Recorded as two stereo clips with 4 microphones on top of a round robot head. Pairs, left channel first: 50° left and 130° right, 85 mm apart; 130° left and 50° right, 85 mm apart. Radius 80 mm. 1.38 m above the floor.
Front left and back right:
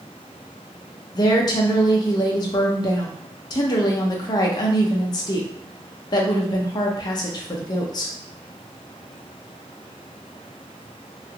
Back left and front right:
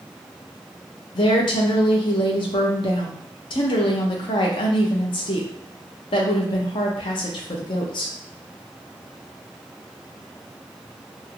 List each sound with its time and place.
1.1 s a woman speaking: 95° left, 0.5 m